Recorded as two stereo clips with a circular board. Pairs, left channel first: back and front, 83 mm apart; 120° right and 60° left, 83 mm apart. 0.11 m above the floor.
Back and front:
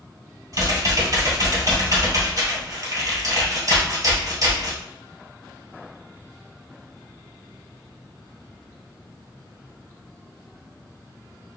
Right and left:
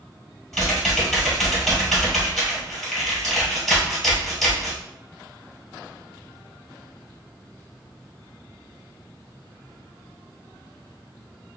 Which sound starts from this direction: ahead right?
Typing on a keyboard, at 0.5 s.